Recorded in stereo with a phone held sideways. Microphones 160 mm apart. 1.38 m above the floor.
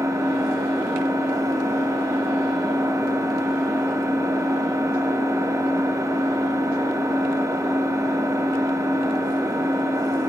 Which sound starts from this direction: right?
An engine running, at 0.0 s.